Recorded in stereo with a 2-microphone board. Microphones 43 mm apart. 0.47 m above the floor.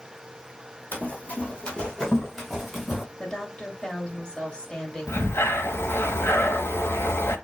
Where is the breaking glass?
No breaking glass in this recording.